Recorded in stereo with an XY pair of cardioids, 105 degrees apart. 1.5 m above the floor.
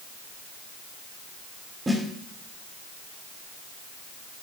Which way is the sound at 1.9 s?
25° right.